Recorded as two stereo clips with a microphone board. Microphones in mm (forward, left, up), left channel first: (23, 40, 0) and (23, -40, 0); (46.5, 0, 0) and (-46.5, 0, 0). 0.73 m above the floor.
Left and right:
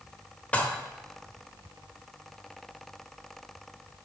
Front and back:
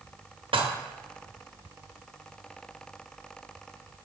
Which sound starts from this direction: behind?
Dishes clattering, at 0.5 s.